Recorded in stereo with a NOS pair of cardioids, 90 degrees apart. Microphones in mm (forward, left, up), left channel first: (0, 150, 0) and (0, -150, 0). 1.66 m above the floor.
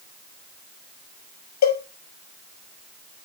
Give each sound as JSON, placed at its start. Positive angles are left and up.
{"t": 1.6, "sound": "a cowbell", "azimuth_deg": 65, "distance_m": 6.0}